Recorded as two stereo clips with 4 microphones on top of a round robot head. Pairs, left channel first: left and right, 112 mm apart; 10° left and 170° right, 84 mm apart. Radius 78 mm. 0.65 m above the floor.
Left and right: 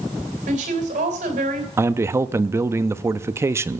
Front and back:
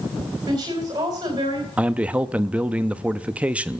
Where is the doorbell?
No doorbell in this recording.